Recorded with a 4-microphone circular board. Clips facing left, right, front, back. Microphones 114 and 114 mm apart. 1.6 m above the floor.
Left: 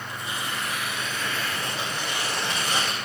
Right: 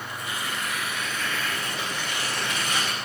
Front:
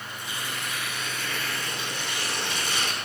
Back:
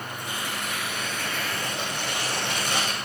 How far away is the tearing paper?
About 9.5 m.